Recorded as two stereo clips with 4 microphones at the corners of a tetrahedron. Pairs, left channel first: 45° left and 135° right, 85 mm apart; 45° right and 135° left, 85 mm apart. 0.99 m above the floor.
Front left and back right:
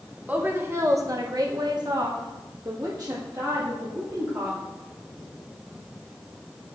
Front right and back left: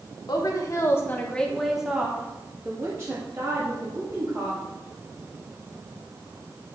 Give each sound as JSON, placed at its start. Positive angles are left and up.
{"t": 0.3, "sound": "a woman speaking", "azimuth_deg": -65, "distance_m": 1.3}